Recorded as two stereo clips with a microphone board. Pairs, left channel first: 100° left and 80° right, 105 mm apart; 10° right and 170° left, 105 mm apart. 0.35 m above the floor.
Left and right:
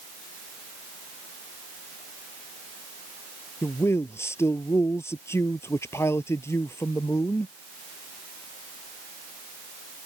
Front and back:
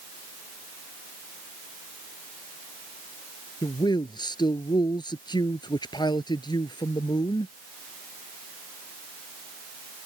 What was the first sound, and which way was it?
A man speaking, 35° left.